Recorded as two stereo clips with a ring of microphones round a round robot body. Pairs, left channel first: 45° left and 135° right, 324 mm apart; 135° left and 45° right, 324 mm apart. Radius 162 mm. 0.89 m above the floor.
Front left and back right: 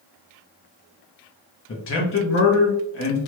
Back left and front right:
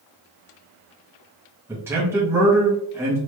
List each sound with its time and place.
1.7 s a man speaking: 35° left, 0.8 m